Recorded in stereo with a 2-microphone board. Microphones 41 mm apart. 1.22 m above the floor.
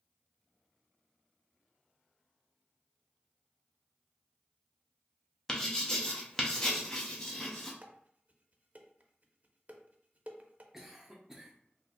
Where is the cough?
10° right (ahead or behind), 0.7 m.